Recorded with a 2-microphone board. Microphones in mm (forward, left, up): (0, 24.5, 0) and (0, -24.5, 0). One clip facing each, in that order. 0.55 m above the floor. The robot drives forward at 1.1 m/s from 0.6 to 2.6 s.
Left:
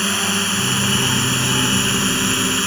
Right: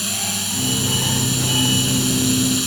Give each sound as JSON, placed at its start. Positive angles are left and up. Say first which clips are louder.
{"t": 0.0, "sound": "a drone", "louder": "left 7 dB", "side_deg": 50}